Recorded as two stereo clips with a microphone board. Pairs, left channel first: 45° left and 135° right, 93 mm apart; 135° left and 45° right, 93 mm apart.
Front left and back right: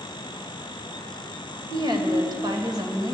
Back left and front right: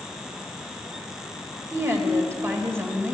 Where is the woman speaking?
105° right, 2.0 m.